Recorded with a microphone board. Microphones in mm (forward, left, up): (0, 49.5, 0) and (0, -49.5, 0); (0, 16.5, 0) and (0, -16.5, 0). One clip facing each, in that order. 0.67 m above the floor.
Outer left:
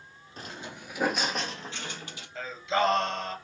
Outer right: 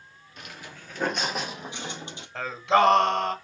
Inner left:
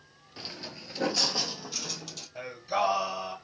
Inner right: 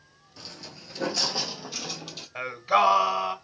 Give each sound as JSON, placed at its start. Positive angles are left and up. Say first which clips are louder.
{"t": 0.4, "sound": "footsteps", "louder": "outer left 3 dB, inner left 2 dB", "side_deg": 35, "distance_m": 0.8}
{"t": 2.4, "sound": "singing", "louder": "outer right 6 dB, inner right 7 dB", "side_deg": -70, "distance_m": 1.1}